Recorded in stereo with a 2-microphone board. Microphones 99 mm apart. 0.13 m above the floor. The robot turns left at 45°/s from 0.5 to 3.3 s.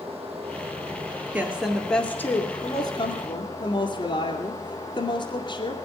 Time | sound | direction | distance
0.0 | running water | 85° right | 3.5 m
1.3 | a woman speaking | 160° right | 2 m